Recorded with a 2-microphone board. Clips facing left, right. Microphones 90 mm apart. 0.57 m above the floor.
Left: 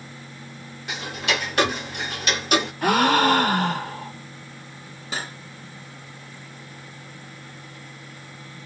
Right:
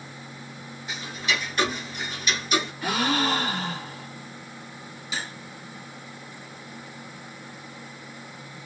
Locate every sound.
0.9 s ticking: 70° left (ahead or behind), 0.9 m
2.8 s a gasp: 65° left (ahead or behind), 0.7 m
5.1 s cutlery clinking: 50° left (ahead or behind), 1.5 m